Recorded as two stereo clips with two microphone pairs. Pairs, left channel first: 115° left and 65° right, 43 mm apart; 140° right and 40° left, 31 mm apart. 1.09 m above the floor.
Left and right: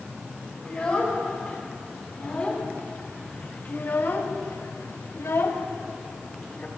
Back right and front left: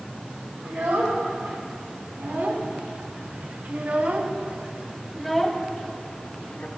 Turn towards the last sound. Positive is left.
turn(degrees=170)